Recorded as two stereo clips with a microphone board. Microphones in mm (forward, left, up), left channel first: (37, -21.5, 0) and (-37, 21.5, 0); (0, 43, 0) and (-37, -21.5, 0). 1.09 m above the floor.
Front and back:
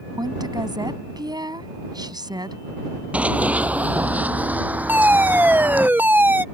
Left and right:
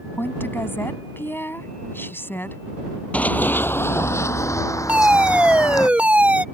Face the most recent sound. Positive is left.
turn(degrees=-170)